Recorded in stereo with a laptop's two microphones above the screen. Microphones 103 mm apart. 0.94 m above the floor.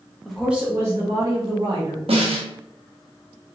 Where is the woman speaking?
5° left (ahead or behind), 0.6 m; by 2.0 s 55° right (ahead or behind), 0.9 m.